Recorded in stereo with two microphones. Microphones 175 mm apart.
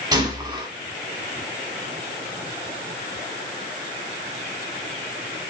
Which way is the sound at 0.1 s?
20° right (ahead or behind).